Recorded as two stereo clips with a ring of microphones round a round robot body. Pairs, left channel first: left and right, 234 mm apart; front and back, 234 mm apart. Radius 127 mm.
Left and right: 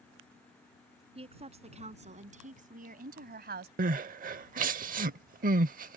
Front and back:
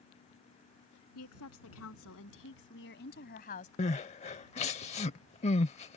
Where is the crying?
55° right.